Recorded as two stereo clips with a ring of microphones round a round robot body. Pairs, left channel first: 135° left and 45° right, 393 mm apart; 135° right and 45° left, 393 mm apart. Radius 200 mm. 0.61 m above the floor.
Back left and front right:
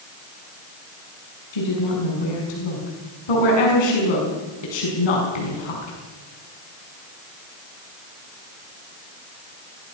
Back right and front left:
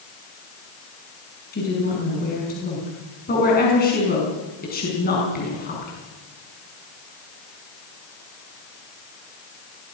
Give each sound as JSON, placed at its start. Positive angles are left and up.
{"t": 1.5, "sound": "a woman speaking", "azimuth_deg": 155, "distance_m": 6.0}